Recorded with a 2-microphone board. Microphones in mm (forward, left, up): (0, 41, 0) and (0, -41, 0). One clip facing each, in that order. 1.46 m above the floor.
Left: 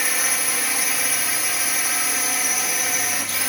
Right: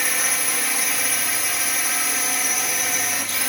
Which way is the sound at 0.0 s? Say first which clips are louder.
Even; centre (ahead or behind).